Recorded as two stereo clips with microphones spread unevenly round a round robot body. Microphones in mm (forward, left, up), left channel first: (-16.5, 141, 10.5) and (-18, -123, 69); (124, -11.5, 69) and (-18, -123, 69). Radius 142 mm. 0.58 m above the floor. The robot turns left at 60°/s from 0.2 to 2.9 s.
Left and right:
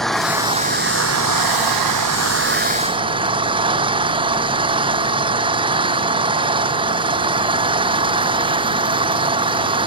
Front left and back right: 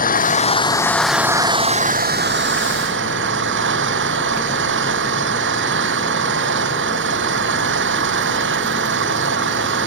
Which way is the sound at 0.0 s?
Straight ahead.